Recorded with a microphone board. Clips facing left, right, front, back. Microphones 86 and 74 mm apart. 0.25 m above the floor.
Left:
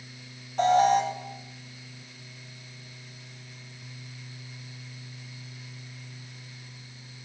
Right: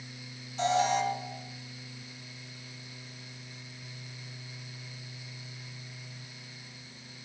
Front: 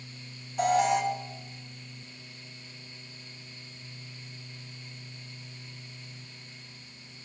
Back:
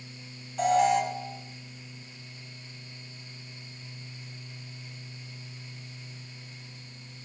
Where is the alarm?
85° left, 3 m.